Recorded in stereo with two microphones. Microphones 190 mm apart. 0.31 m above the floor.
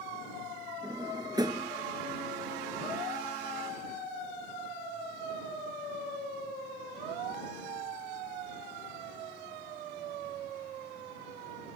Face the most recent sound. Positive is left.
turn(degrees=-20)  # may be behind; listen again after turning